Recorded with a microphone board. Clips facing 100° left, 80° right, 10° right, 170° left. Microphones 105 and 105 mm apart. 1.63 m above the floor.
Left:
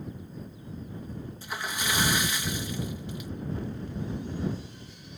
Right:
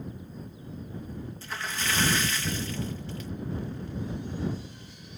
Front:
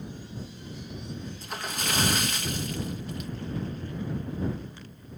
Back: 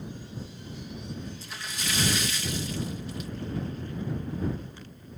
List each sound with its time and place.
1.4 s a splash: 25° left